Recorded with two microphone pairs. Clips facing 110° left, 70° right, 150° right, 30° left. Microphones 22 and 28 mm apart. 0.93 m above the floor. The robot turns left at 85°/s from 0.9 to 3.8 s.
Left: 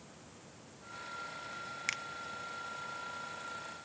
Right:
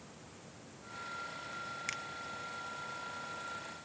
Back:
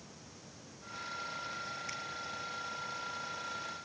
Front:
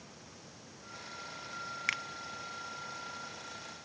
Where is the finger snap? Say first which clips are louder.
Left 4 dB, front 8 dB; 35° left; by 2.0 s 25° left.